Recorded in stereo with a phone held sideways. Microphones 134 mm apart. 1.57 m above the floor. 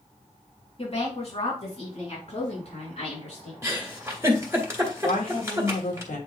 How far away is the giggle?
About 1.8 m.